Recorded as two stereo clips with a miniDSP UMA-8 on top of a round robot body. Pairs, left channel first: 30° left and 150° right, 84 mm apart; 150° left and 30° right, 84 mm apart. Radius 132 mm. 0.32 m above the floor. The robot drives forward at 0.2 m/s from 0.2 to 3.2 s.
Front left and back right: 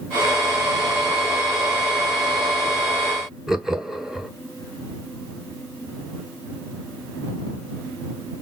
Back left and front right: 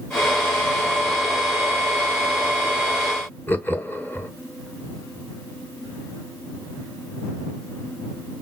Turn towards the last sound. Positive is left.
turn(degrees=135)